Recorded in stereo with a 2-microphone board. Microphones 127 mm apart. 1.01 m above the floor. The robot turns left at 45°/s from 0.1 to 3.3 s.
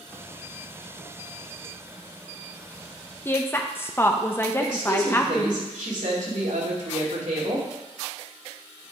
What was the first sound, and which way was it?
A woman speaking, 15° left (ahead or behind).